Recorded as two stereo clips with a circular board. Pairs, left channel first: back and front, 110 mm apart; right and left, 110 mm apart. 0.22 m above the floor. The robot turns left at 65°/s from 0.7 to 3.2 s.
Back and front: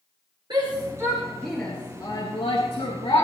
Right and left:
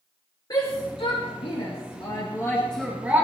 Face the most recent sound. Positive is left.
turn(degrees=155)